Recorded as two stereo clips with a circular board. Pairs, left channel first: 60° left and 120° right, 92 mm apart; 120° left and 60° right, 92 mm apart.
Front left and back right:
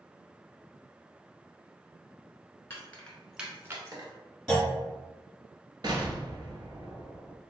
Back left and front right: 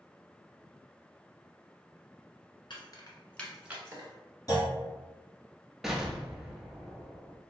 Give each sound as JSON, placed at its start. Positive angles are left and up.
{"t": 2.7, "sound": "keys jangling", "azimuth_deg": 125, "distance_m": 1.3}
{"t": 4.5, "sound": "a clunk", "azimuth_deg": 140, "distance_m": 2.0}
{"t": 5.8, "sound": "an explosion", "azimuth_deg": -145, "distance_m": 0.6}